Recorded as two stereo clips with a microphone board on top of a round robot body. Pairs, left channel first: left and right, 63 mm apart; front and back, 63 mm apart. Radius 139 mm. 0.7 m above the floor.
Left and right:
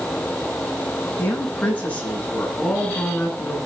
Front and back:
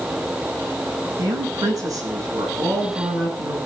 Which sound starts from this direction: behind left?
A woman speaking, at 1.2 s.